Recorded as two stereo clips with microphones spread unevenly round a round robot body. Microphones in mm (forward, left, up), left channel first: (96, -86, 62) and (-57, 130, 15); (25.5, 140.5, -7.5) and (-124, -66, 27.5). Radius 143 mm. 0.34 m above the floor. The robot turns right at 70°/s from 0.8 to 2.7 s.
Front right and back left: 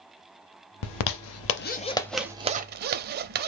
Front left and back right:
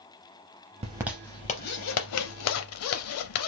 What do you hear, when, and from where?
0.8 s a zipper: 55° right, 0.5 m; by 3.5 s 75° left, 0.5 m